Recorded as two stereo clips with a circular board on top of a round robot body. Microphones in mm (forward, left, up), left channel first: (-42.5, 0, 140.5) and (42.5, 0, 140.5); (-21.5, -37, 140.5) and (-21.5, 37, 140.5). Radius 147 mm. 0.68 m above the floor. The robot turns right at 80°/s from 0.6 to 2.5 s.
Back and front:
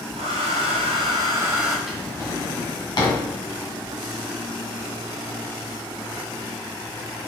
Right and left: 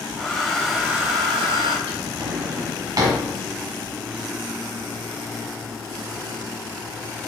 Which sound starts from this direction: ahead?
A hair dryer, at 0.2 s.